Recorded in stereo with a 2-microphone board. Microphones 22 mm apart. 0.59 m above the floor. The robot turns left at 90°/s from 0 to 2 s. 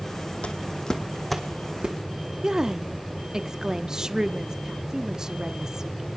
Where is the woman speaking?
30° right (ahead or behind), 0.7 m.